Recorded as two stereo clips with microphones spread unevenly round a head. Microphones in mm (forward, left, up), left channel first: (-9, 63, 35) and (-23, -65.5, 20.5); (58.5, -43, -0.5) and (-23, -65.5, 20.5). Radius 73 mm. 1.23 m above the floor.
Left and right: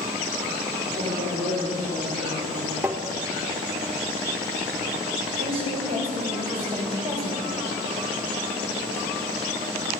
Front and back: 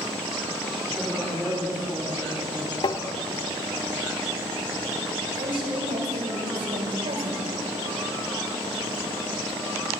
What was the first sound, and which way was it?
A woman speaking, 75° right.